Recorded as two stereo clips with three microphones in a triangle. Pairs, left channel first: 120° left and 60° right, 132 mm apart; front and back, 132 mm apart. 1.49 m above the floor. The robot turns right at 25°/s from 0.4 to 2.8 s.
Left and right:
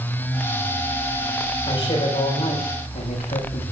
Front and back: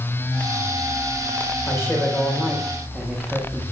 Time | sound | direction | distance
1.7 | a man speaking | 65° left | 7 m